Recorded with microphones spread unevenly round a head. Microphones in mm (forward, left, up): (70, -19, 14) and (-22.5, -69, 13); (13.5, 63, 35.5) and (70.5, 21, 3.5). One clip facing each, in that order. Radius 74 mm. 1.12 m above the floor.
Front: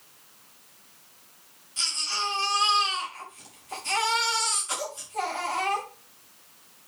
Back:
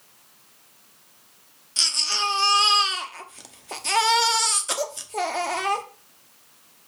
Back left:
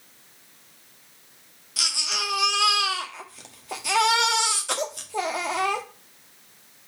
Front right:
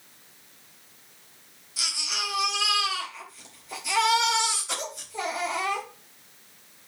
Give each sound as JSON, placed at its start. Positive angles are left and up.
{"t": 1.8, "sound": "a baby crying", "azimuth_deg": 175, "distance_m": 1.2}